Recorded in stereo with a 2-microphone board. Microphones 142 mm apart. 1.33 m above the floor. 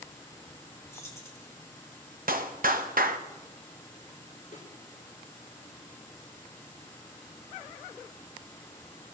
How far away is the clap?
About 0.8 m.